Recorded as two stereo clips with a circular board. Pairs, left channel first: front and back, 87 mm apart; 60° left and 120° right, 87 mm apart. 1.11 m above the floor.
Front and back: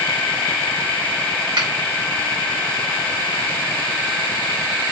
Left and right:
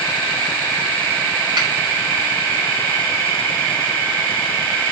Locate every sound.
1.6 s a finger snap: 150° right, 4 m